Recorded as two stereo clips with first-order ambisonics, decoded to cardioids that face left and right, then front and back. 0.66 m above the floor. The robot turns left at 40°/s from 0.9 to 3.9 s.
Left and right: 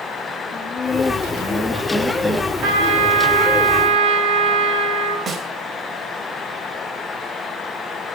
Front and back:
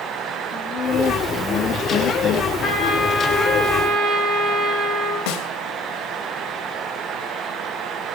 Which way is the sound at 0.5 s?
45° left.